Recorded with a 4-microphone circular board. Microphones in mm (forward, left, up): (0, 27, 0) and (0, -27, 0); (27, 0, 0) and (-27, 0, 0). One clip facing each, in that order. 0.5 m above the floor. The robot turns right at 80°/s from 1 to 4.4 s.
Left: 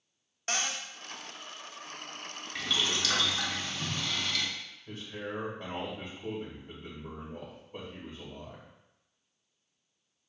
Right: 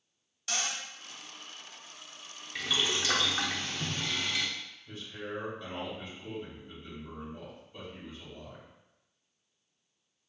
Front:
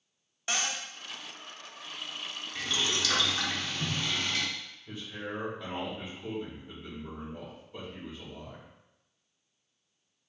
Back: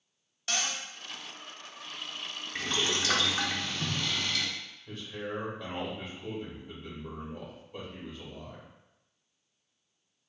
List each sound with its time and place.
0.5 s a cupboard door: 60° left, 0.5 m
2.5 s boiling: straight behind, 0.6 m; by 4.5 s 30° right, 0.6 m
4.9 s a man speaking: 90° left, 1.9 m